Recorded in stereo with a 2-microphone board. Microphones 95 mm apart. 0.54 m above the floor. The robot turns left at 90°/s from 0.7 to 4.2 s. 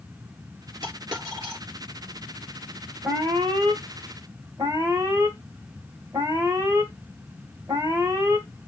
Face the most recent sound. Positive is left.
turn(degrees=-130)